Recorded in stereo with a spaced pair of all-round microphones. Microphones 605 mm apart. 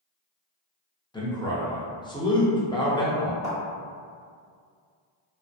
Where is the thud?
25° left (ahead or behind), 1.3 m.